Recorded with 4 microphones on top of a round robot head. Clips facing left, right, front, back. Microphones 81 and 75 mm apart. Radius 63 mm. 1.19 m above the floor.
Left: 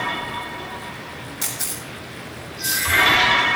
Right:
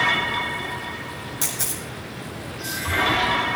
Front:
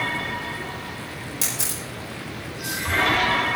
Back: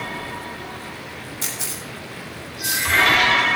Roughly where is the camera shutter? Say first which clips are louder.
Right 1 dB, even; ahead right.